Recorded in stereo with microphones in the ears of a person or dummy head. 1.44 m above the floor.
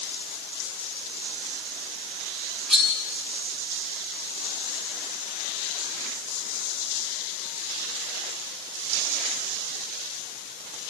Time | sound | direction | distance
2.7 | cutlery clinking | 5° left (ahead or behind) | 7.5 m